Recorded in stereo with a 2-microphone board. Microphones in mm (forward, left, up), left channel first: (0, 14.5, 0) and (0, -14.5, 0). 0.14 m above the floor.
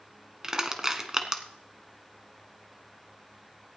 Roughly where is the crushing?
Centre.